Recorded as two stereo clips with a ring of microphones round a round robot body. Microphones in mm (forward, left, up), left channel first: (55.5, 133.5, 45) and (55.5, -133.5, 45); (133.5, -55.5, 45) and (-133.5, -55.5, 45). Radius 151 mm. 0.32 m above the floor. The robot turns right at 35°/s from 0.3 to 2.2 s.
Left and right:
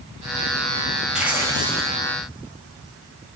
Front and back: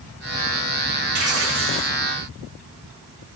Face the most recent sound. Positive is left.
turn(degrees=-140)